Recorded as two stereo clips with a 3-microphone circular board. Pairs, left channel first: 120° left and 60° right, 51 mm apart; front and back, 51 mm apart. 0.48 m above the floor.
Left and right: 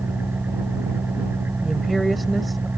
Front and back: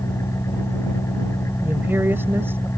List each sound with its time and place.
0.0 s an engine running: 10° right
1.6 s a woman speaking: 155° right